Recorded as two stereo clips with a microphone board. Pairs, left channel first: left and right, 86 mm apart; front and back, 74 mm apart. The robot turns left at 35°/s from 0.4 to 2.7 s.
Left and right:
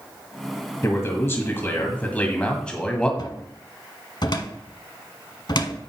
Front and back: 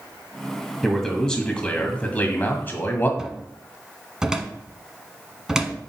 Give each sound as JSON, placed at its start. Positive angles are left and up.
{"t": 0.8, "sound": "a man speaking", "azimuth_deg": 85, "distance_m": 1.7}
{"t": 3.2, "sound": "a cupboard door", "azimuth_deg": 100, "distance_m": 1.0}